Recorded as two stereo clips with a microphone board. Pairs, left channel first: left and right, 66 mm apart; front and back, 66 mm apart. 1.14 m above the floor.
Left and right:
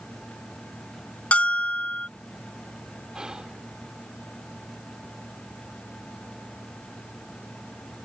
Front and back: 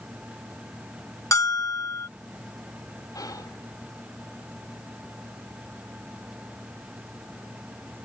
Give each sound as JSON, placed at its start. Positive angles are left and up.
{"t": 1.3, "sound": "a bell", "azimuth_deg": 25}
{"t": 3.1, "sound": "whispering", "azimuth_deg": -10}